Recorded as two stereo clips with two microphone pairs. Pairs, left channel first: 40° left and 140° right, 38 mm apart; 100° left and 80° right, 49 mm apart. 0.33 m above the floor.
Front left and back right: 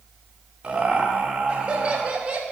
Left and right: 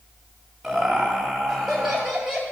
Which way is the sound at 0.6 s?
170° right.